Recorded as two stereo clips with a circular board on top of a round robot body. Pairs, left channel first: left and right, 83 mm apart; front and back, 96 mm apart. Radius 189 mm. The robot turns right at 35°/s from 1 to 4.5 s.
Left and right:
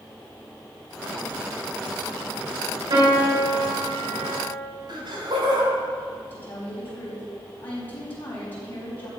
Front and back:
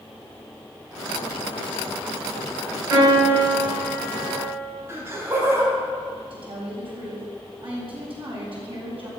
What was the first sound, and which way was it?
A piano, 120° right.